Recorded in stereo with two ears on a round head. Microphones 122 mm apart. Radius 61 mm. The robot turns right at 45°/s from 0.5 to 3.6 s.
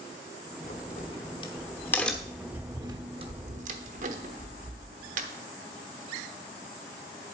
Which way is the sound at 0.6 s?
70° left (ahead or behind).